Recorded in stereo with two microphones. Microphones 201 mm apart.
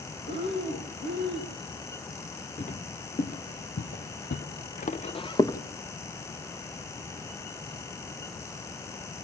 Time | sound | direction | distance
0.3 | breathing | 70° left (ahead or behind) | 5 m
2.6 | footsteps | 40° left (ahead or behind) | 1.9 m